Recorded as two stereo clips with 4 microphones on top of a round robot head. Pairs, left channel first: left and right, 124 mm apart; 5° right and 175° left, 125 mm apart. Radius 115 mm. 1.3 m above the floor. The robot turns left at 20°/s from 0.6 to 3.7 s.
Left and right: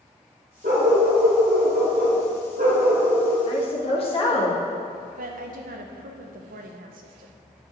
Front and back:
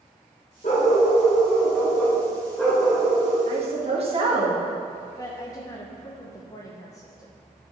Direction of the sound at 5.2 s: 75° right.